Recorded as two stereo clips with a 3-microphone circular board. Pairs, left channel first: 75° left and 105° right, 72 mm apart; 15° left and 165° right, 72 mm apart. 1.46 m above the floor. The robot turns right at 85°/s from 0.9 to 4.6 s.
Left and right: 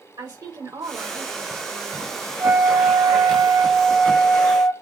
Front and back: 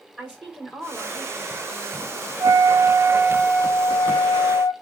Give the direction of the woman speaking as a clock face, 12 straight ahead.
3 o'clock.